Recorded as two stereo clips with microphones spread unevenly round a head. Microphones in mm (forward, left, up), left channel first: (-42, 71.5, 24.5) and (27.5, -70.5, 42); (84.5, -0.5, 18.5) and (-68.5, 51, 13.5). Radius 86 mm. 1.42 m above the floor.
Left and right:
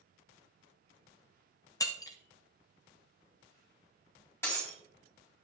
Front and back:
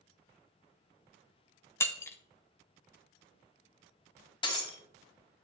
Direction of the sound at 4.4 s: 35° left.